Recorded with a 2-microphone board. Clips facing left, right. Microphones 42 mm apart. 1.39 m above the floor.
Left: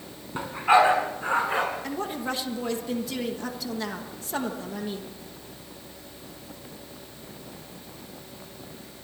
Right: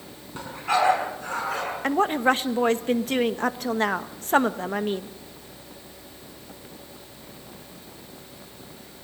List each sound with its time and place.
0.3 s a dog barking: 25° left (ahead or behind), 5.5 m; by 1.6 s 30° left (ahead or behind), 6.5 m
1.8 s a woman speaking: 50° right (ahead or behind), 1.2 m